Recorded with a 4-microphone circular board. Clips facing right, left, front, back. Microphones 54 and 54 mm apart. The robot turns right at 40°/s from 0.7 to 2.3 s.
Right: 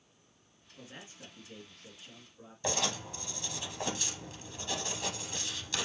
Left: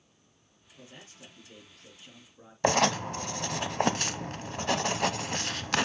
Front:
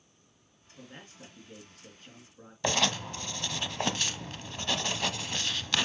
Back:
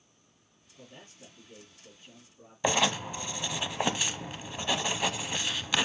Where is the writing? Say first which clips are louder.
Left 10 dB, back 2 dB; 105° left, 0.6 m.